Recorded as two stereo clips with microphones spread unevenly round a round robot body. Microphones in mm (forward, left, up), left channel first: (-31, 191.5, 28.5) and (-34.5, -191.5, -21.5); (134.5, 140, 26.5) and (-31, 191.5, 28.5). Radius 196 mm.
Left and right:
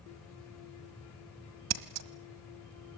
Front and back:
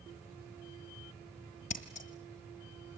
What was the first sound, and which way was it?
Scissors, 60° right.